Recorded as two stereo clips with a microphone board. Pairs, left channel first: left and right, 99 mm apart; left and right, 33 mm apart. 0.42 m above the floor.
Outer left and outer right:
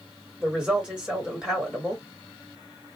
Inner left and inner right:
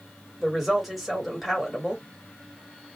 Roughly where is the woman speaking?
Centre.